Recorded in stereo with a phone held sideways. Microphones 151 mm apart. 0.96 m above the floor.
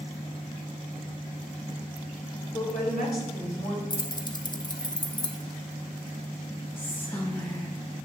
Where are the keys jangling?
30° left (ahead or behind), 0.5 m.